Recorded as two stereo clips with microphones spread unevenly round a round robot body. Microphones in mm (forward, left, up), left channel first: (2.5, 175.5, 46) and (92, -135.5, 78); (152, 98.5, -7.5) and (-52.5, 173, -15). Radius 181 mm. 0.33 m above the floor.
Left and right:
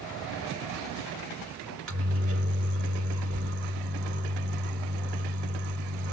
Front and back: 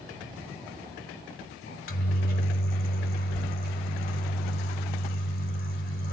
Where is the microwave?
30° right, 1.5 m.